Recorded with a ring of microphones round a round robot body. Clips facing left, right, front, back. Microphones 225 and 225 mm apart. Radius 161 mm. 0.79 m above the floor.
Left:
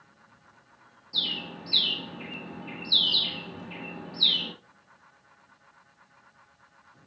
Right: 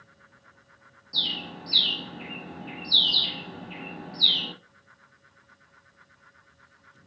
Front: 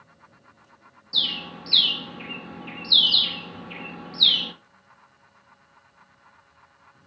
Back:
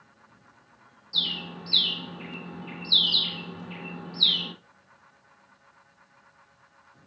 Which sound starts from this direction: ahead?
A bird, at 1.1 s.